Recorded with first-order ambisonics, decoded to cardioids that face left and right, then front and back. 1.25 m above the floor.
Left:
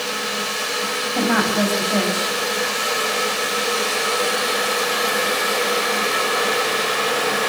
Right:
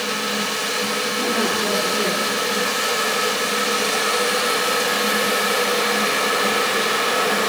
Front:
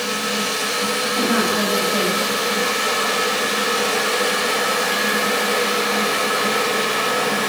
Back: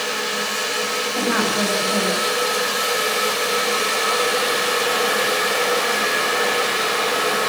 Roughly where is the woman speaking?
Left.